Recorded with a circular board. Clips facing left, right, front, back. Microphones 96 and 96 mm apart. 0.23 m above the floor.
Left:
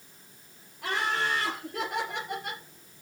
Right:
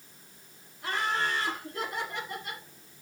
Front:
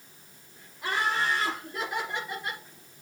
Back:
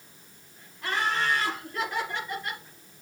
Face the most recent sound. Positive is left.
turn(degrees=75)